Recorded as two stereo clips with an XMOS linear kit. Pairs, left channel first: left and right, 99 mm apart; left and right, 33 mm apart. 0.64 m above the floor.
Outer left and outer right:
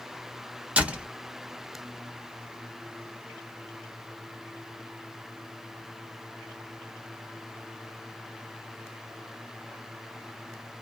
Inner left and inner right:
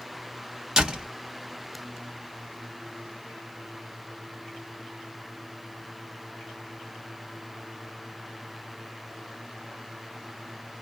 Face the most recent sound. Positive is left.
turn(degrees=-15)  # may be behind; listen again after turning